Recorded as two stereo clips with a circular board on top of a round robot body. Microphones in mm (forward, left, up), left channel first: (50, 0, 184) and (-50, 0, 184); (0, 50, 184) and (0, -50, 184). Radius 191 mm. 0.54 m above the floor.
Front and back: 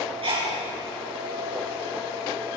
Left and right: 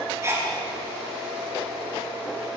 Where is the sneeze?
150° right, 6.5 m.